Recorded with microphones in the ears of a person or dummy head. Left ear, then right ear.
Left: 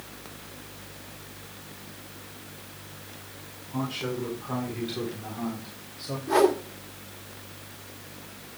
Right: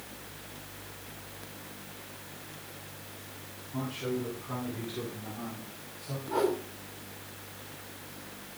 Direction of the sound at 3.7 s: 25° left (ahead or behind).